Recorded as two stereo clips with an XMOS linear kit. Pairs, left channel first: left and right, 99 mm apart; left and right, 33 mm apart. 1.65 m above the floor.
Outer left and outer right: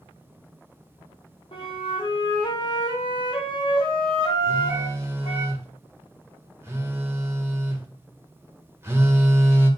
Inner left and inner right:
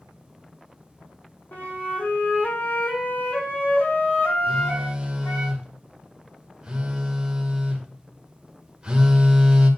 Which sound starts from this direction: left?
A flute, at 1.5 s.